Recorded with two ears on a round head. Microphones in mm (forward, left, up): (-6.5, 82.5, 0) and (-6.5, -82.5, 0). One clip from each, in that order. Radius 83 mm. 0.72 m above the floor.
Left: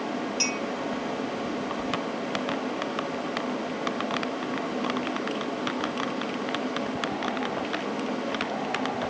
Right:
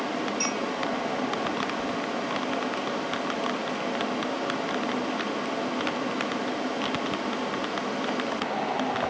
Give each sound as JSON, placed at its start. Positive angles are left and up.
{"t": 0.4, "sound": "a clink", "side_deg": 70, "distance_m": 3.0}